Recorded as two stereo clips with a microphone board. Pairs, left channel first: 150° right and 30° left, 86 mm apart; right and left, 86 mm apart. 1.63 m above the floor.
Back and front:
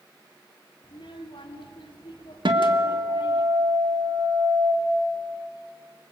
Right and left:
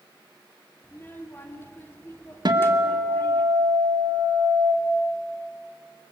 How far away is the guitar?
About 2.0 m.